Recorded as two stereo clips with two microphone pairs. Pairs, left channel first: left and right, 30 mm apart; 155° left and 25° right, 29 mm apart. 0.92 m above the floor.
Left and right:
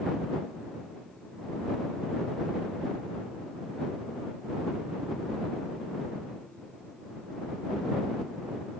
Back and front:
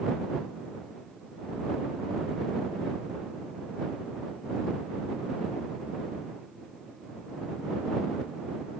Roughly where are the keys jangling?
No keys jangling in this recording.